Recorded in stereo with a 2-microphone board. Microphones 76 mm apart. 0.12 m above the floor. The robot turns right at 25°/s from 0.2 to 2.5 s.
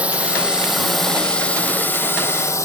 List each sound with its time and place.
0.0 s a drone: 15° right; by 2.7 s 40° left